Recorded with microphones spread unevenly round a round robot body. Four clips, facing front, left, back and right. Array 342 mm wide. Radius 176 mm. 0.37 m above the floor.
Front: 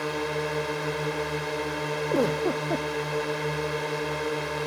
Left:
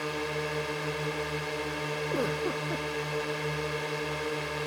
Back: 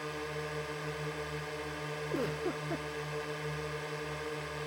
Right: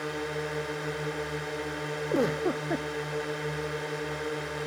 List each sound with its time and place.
0.0 s a drone: 5° right
2.1 s a giggle: 30° right